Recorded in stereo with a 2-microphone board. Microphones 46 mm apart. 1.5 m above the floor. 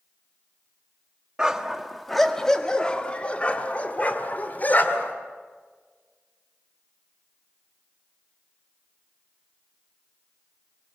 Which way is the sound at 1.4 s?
20° right (ahead or behind).